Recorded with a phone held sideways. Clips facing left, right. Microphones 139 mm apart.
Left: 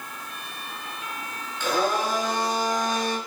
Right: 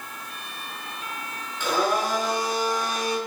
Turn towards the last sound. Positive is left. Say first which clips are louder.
# even
turn(degrees=-10)  # may be behind; listen again after turning